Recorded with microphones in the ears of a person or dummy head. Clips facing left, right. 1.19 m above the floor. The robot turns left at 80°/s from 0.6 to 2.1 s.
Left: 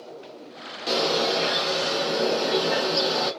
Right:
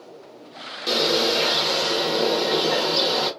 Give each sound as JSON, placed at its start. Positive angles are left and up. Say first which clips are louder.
{"t": 0.9, "sound": "a bird", "louder": "right 2 dB", "azimuth_deg": -15, "distance_m": 0.9}